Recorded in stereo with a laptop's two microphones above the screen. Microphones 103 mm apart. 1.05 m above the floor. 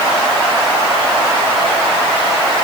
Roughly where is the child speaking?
No child speaking in this recording.